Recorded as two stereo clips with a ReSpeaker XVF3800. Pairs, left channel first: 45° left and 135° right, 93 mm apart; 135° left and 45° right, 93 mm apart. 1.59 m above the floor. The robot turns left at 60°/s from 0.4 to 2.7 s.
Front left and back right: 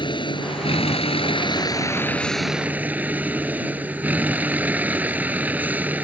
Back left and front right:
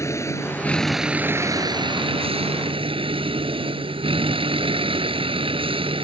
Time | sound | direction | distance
0.0 | a vehicle | 75° left | ?